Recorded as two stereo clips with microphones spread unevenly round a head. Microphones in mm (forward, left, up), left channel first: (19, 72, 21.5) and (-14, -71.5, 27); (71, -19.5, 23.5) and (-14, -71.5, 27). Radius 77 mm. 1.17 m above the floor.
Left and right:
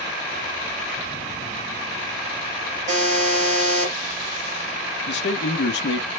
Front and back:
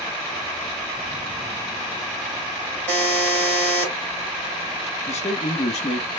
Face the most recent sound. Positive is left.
turn(degrees=65)